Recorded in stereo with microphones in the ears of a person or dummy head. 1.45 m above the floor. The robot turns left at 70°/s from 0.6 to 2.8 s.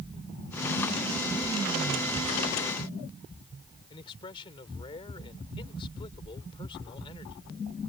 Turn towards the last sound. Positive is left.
turn(degrees=25)  # may be behind; listen again after turning